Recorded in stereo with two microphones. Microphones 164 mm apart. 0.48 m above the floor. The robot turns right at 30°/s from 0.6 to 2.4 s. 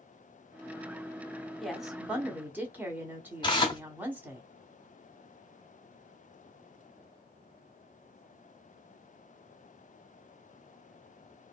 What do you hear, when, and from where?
1.6 s a woman speaking: centre (ahead or behind), 0.9 m; by 4.4 s 10° right (ahead or behind), 0.9 m
3.4 s tearing paper: 30° left (ahead or behind), 0.7 m